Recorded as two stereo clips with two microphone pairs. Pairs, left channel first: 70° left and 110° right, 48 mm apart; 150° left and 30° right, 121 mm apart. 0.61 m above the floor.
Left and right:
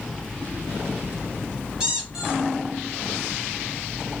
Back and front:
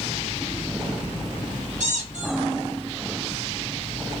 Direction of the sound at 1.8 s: 40° right.